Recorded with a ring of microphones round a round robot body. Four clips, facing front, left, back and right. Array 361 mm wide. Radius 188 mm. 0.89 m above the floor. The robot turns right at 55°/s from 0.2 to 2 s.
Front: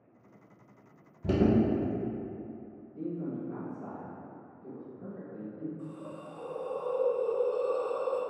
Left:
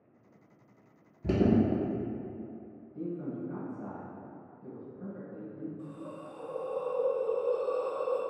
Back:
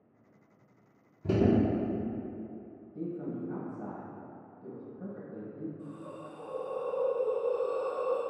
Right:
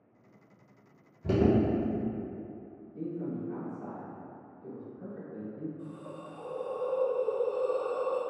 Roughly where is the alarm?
Ahead left.